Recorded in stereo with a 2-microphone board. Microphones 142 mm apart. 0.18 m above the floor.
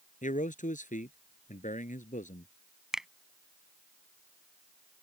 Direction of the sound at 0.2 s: 65° left (ahead or behind).